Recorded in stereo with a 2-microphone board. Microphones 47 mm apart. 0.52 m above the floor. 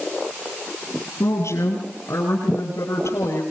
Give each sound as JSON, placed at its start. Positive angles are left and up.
{"t": 1.2, "sound": "a woman speaking", "side_deg": 80, "distance_m": 7.5}